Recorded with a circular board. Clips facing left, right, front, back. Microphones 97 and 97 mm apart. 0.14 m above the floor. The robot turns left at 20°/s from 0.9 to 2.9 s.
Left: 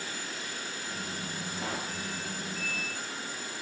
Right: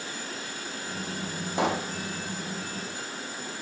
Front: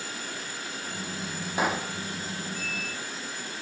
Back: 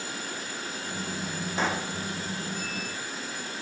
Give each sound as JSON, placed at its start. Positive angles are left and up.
{"t": 1.6, "sound": "a pop", "azimuth_deg": -80, "distance_m": 2.5}